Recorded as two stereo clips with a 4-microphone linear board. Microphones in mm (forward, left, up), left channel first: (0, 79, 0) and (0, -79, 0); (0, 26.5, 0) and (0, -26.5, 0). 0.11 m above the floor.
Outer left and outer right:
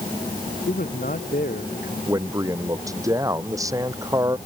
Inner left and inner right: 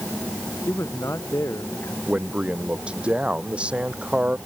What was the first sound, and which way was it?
A man speaking, 65° left (ahead or behind).